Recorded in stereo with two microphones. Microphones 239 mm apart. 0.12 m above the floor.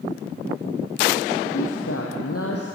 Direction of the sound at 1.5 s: 65° left (ahead or behind).